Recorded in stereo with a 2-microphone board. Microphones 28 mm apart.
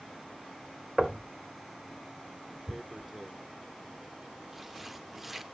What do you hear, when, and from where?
1.0 s knocking: 25° right (ahead or behind), 1.0 m
2.7 s tearing paper: 5° right (ahead or behind), 0.6 m